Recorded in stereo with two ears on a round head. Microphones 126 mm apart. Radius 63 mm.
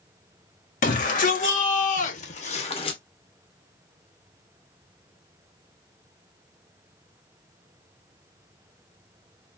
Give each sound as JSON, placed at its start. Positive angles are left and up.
{"t": 0.8, "sound": "a shout", "side_deg": 65, "distance_m": 1.9}